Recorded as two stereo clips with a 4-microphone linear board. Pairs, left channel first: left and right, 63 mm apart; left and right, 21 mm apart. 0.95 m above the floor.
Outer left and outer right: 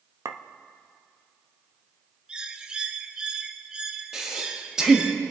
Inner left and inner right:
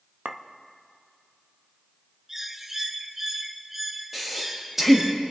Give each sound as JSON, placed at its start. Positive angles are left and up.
{"t": 0.2, "sound": "a clink", "side_deg": -55, "distance_m": 0.6}
{"t": 2.3, "sound": "a bird", "side_deg": -15, "distance_m": 0.6}
{"t": 4.1, "sound": "breathing", "side_deg": -10, "distance_m": 1.7}